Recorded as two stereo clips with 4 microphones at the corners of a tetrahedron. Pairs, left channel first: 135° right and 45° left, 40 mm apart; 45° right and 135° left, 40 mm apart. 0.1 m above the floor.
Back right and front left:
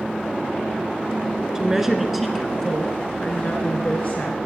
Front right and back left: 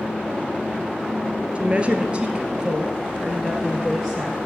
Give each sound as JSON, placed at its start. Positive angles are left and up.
{"t": 1.6, "sound": "a woman speaking", "azimuth_deg": 110, "distance_m": 1.7}